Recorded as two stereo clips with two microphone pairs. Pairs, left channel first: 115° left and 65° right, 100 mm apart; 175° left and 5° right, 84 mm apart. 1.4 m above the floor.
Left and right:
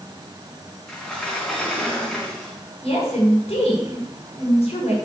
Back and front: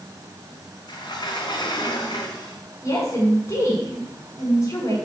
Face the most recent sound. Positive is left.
turn(degrees=120)